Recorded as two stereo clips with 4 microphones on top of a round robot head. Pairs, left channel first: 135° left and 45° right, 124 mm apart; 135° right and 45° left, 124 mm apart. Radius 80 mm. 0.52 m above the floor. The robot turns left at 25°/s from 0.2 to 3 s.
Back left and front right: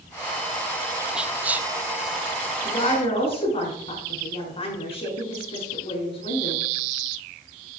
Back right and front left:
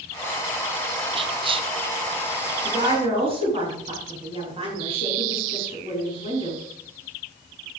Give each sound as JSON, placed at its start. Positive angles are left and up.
{"t": 1.1, "sound": "whispering", "azimuth_deg": 40, "distance_m": 0.8}
{"t": 2.6, "sound": "a woman speaking", "azimuth_deg": 100, "distance_m": 6.0}